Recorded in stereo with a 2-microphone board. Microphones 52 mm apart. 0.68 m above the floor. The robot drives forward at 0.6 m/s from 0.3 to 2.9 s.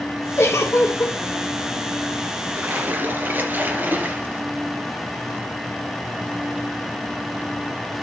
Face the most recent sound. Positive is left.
turn(degrees=-35)  # may be behind; listen again after turning